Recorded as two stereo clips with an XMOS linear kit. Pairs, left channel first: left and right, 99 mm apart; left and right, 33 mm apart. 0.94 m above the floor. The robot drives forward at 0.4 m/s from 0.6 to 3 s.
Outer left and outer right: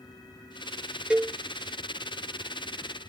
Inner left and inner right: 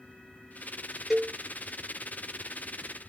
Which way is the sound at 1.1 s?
10° right (ahead or behind).